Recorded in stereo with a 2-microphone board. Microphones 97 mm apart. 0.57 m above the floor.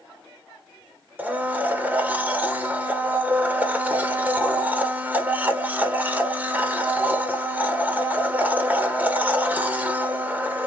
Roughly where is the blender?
Centre.